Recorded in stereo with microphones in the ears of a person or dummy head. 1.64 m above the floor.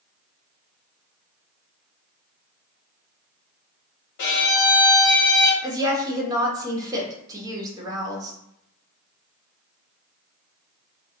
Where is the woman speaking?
20° right (ahead or behind), 1.0 m.